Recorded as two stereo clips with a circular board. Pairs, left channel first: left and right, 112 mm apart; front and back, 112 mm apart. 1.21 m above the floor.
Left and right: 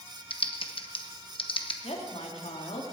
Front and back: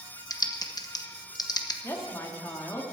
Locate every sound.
0.3 s typing on a keyboard: 55° left, 1.0 m
1.8 s a woman speaking: 65° left, 2 m